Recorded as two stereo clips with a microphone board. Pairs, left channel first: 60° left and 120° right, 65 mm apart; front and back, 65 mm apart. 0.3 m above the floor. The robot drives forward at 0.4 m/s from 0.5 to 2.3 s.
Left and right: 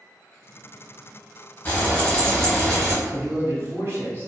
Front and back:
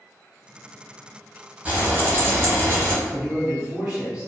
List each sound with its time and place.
1.6 s frying: 125° left, 0.8 m; by 3.0 s 140° left, 1.0 m
3.0 s a man speaking: 115° right, 1.5 m